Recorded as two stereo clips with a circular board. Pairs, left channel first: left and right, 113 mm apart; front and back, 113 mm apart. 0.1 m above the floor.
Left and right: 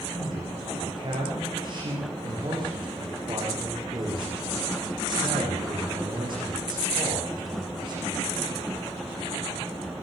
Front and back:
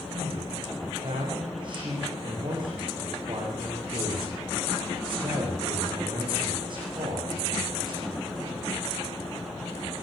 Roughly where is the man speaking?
Behind right.